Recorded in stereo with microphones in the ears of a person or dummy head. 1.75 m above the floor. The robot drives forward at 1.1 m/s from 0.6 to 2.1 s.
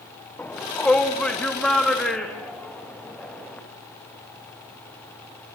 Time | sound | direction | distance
0.4 | a shout | 10° left (ahead or behind) | 1.3 m